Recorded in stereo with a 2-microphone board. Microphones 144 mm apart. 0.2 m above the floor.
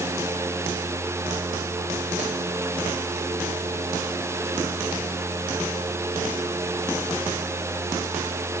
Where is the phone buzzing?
I don't hear a phone buzzing.